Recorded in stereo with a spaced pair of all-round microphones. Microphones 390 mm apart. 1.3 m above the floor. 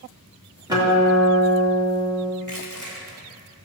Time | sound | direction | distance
0.7 | a guitar | 10° right (ahead or behind) | 2.5 m
2.4 | crushing | 55° right (ahead or behind) | 1.9 m